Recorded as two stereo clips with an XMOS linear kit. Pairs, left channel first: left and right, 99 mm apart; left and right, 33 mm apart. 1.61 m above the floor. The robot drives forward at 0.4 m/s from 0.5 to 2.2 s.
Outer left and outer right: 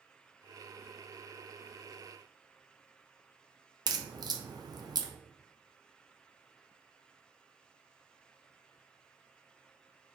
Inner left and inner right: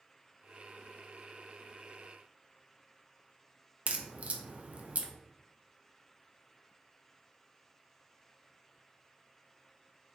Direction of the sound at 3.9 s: 45° right (ahead or behind).